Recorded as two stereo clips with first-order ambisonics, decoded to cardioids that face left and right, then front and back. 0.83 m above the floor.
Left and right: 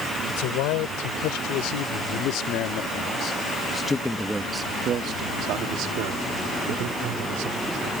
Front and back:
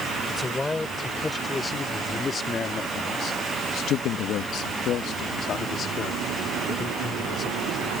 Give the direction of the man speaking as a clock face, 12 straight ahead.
9 o'clock.